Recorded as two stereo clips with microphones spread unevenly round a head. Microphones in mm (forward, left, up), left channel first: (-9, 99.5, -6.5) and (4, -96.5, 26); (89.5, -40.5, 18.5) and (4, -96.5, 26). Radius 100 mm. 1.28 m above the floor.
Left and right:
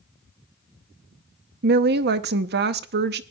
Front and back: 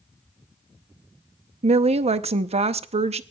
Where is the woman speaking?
130° right, 0.7 m.